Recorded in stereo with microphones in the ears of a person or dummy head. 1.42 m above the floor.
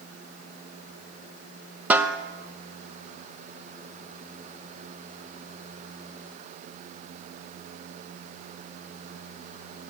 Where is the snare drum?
10° right (ahead or behind), 0.9 m.